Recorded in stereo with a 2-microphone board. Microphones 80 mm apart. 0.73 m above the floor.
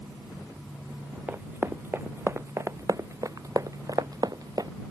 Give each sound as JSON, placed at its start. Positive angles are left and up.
{"t": 1.3, "sound": "running footsteps", "side_deg": -25}